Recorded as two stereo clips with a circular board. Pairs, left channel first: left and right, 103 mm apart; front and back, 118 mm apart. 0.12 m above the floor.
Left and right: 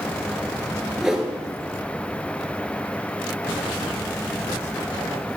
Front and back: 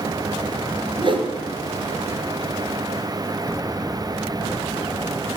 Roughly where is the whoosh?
Behind.